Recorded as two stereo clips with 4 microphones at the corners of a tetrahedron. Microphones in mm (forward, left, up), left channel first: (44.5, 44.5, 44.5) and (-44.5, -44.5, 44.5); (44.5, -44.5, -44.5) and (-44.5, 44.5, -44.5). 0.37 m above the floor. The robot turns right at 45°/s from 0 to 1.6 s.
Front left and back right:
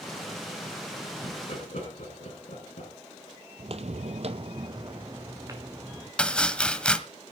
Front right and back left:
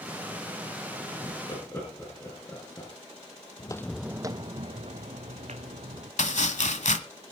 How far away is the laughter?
About 5 m.